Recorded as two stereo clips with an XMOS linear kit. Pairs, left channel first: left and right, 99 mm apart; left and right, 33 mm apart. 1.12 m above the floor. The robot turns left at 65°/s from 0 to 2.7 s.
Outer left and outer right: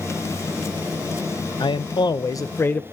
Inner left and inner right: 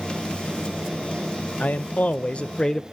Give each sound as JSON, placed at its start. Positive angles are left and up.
{"t": 1.6, "sound": "a man speaking", "azimuth_deg": 100, "distance_m": 0.6}